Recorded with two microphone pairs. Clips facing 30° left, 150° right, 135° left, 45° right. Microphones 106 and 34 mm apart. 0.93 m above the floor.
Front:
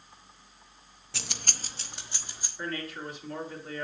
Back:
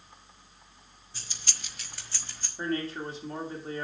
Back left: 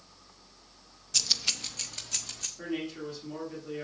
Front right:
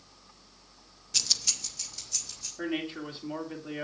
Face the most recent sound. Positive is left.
turn(degrees=-95)